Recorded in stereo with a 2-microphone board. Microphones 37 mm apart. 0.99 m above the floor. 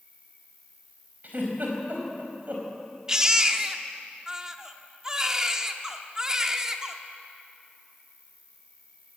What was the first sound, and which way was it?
An insect, 40° left (ahead or behind).